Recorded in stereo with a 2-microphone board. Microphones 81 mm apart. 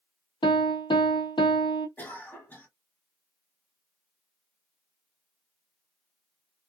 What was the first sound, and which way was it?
A piano, 85° left.